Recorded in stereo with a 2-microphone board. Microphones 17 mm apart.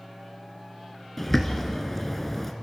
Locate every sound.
1.2 s a bird: 15° left (ahead or behind), 1.8 m